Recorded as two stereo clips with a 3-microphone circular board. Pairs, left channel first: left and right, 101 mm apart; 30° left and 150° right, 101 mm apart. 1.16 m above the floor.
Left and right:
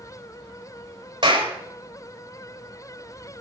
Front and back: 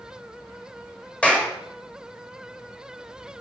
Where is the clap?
50° right, 5 m.